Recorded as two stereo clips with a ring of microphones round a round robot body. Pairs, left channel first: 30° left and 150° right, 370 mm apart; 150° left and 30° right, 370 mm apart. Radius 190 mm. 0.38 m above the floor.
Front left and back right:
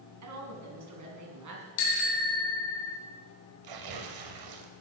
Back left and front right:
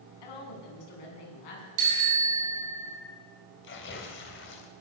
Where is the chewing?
No chewing in this recording.